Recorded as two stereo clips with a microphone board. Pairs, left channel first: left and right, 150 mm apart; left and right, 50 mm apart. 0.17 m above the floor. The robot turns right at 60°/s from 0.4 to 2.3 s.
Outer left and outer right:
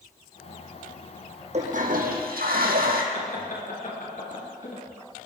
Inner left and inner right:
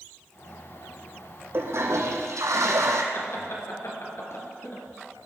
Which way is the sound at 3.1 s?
65° left (ahead or behind).